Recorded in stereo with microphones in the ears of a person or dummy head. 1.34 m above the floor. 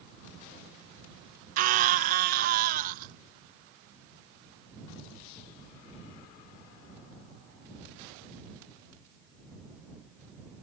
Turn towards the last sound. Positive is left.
turn(degrees=-50)  # may be behind; listen again after turning